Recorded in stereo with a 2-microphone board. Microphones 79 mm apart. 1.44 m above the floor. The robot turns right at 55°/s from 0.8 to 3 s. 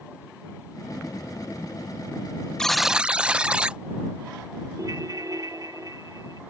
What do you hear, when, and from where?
2.6 s a buzzer: 10° left (ahead or behind); by 3.8 s 15° right (ahead or behind)
4.8 s a ringtone: 50° right (ahead or behind)